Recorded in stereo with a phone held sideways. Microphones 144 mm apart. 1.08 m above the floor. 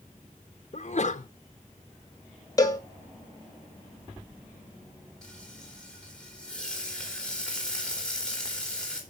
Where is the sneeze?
50° left (ahead or behind), 0.6 m.